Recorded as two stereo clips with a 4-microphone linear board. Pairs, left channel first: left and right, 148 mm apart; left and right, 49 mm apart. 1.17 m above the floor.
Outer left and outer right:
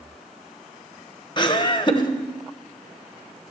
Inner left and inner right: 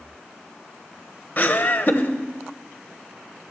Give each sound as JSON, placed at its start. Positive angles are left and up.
{"t": 1.4, "sound": "laughter", "side_deg": 30, "distance_m": 1.0}